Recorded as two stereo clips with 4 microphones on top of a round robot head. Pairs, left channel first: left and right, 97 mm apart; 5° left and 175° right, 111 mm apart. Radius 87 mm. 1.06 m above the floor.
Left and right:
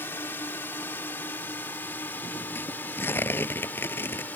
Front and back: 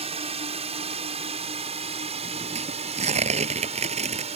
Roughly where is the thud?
I don't hear a thud.